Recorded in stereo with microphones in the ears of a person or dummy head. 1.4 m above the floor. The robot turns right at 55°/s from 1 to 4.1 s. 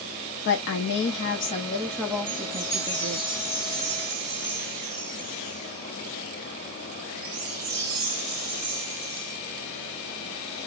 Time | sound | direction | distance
0.5 | a woman speaking | 120° left | 0.5 m
2.3 | a chime | 135° left | 1.6 m